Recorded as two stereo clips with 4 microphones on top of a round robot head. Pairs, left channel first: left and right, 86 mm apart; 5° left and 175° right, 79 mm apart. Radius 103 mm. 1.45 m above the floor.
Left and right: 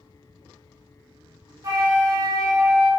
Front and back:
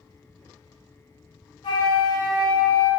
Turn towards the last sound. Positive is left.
turn(degrees=-45)